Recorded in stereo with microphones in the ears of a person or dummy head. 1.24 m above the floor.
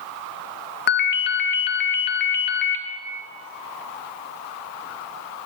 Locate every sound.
0.9 s a ringtone: 50° left (ahead or behind), 0.7 m